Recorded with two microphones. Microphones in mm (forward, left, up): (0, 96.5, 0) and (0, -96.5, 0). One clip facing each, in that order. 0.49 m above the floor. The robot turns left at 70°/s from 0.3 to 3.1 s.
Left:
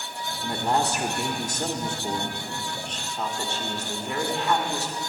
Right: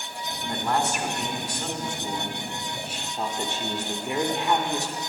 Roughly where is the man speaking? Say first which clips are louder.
Left 1 dB; behind.